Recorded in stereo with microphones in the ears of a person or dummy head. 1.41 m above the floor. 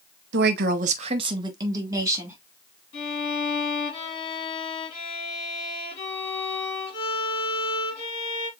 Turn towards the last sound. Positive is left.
turn(degrees=30)  # may be behind; listen again after turning